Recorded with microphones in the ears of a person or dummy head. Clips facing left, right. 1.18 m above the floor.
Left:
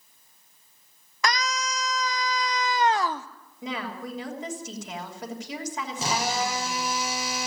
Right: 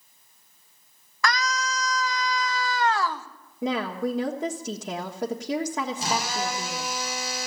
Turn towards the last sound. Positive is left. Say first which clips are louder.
# left 1 dB
turn(degrees=70)  # may be behind; listen again after turning